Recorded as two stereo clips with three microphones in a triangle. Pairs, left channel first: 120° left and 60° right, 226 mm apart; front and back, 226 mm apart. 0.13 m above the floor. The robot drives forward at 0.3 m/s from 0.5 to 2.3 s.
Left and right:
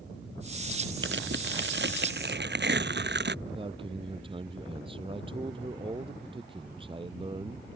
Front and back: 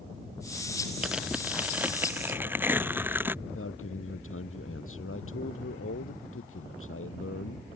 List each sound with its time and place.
1.0 s tearing paper: 95° right; by 3.4 s 100° right
3.5 s a man speaking: 5° left